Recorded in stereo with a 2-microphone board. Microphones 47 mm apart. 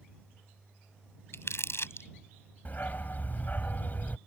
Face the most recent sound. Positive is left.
turn(degrees=40)  # may be behind; listen again after turning